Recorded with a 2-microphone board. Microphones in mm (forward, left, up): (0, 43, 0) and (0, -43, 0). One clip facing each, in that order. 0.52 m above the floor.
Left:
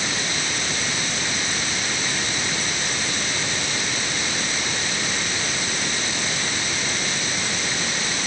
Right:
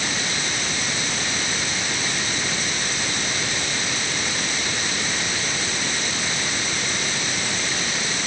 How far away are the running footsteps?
No running footsteps in this recording.